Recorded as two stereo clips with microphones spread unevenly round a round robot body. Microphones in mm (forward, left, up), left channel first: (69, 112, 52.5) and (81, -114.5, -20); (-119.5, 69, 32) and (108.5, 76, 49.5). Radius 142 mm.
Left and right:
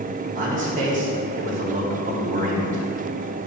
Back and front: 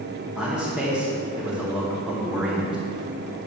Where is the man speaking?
90° right, 0.9 m.